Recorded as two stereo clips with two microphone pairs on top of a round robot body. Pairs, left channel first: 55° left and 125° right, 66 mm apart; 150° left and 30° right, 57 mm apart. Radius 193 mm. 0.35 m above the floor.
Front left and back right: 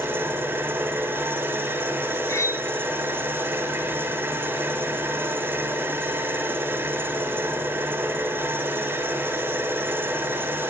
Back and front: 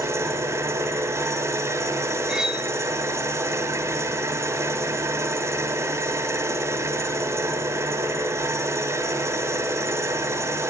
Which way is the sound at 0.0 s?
65° right.